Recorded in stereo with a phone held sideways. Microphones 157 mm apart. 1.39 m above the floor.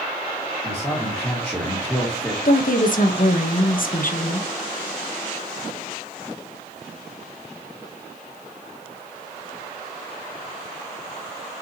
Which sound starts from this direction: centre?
A man speaking, at 0.6 s.